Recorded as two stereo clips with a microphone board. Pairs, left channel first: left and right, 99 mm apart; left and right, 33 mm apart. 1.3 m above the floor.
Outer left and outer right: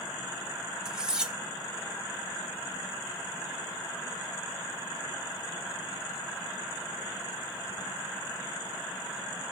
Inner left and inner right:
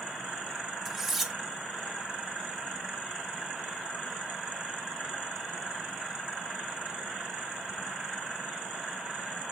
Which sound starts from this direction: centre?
Cutlery clinking, at 0.8 s.